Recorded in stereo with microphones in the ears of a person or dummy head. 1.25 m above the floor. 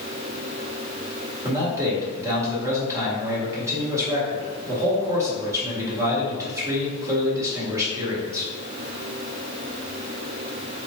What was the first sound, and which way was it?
A man speaking, 20° right (ahead or behind).